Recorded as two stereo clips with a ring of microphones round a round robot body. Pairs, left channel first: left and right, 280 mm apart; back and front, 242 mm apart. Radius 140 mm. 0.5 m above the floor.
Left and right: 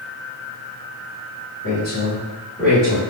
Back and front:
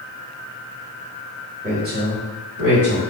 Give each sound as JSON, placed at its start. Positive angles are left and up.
{"t": 1.6, "sound": "a woman speaking", "azimuth_deg": 50, "distance_m": 1.8}